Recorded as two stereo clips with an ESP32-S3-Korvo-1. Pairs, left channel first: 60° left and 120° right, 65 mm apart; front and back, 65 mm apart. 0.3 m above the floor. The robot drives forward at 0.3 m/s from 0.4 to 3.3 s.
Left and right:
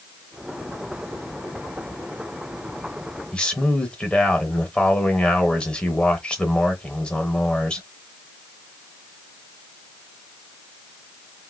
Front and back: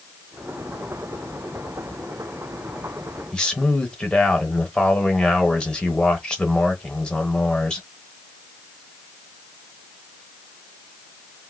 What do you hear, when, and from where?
3.3 s a man speaking: 40° left, 0.9 m